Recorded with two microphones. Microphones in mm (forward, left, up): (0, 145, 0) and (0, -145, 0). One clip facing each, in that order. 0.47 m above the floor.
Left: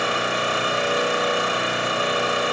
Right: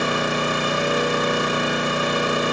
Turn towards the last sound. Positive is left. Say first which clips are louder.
# right 3 dB
turn(degrees=-50)  # may be behind; listen again after turning